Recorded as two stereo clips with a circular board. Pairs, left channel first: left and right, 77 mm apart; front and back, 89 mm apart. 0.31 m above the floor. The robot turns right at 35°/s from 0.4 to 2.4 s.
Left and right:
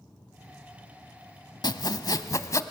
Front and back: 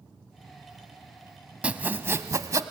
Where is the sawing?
105° left, 0.7 m; by 2.6 s 130° left, 0.7 m.